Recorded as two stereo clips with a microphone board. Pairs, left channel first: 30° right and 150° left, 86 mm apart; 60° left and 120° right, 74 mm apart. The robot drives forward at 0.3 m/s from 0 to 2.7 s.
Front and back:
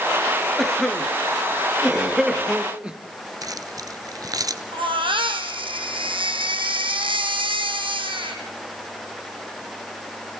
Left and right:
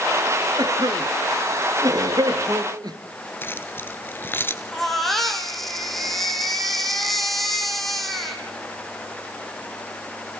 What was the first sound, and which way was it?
A cough, 115° right.